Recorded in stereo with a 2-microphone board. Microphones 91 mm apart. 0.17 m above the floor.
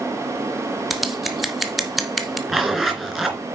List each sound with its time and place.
0.9 s scissors: centre (ahead or behind), 1.3 m
2.5 s a zipper: 5° right (ahead or behind), 2.5 m